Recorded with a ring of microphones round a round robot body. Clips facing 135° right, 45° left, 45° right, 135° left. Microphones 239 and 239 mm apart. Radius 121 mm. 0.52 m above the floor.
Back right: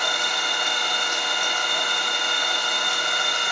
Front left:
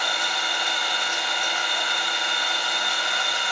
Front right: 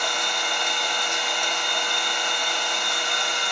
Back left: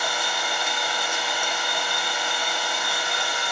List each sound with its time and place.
0.0 s an engine running: 145° right, 1.0 m